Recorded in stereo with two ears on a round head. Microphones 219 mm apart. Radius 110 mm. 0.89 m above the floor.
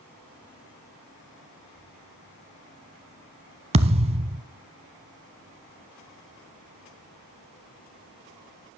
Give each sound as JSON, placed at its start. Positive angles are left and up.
{"t": 3.7, "sound": "a thud", "side_deg": -25, "distance_m": 0.8}